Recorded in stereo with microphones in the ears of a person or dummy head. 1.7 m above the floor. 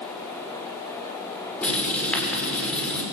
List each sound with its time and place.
1.6 s writing: 5° left (ahead or behind), 6.5 m